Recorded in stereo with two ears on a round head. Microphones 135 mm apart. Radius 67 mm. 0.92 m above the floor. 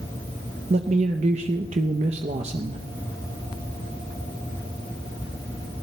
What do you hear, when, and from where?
0.7 s a man speaking: 45° right (ahead or behind), 0.6 m